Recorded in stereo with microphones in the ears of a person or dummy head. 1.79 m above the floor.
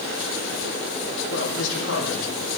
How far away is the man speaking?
About 5.5 m.